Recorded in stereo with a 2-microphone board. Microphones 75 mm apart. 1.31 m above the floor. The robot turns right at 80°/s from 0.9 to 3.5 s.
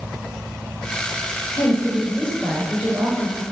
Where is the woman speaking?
110° left, 6.5 m; by 3.4 s 105° right, 6.5 m.